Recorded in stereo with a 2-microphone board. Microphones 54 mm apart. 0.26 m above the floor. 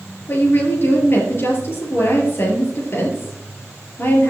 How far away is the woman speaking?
About 6 m.